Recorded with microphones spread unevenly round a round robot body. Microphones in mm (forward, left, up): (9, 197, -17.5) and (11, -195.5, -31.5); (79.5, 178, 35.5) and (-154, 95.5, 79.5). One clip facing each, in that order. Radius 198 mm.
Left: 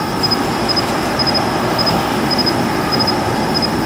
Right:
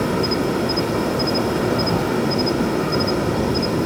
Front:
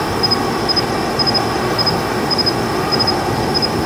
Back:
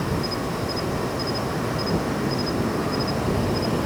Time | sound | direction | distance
0.0 | an insect | 25° left | ?